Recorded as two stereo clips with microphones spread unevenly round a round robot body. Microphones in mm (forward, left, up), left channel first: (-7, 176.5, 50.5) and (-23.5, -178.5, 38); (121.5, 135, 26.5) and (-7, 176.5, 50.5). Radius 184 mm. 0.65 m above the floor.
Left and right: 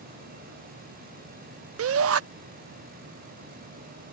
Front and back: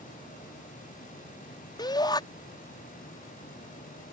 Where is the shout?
55° right.